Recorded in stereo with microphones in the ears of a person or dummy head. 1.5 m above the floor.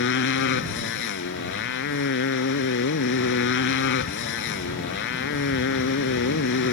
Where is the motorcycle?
60° left (ahead or behind).